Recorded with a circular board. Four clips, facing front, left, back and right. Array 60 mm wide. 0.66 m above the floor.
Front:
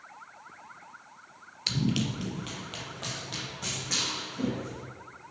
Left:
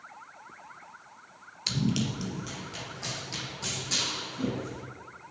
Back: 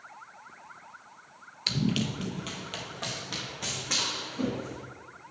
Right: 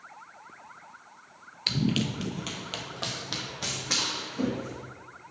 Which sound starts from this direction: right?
Running footsteps, at 1.7 s.